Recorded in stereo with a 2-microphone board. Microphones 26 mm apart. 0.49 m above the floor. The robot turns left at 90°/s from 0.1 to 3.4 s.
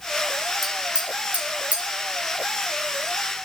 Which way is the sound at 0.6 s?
10° right (ahead or behind).